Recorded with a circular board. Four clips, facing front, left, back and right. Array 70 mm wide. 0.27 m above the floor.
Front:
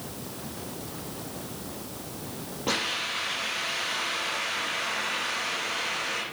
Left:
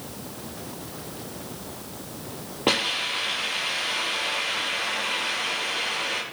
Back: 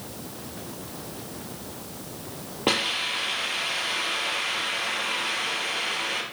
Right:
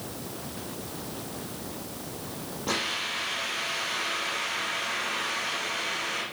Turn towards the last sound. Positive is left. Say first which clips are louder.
# left 6 dB, back 4 dB
turn(degrees=130)